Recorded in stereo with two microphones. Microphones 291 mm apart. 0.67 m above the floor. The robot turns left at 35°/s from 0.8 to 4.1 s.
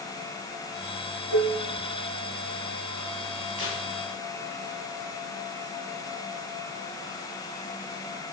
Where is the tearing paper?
50° left (ahead or behind), 4.5 m; by 3.8 s 55° left (ahead or behind), 4.5 m.